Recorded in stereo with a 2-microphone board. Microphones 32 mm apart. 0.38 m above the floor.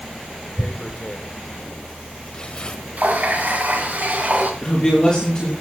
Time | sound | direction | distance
0.6 | tearing paper | 30° left (ahead or behind) | 1.4 m
3.0 | a running tap | 55° right (ahead or behind) | 2.5 m
4.6 | a man speaking | 20° left (ahead or behind) | 7 m